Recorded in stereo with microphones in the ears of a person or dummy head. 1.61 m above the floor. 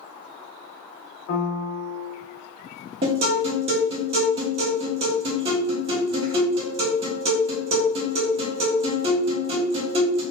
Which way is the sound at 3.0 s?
25° right (ahead or behind).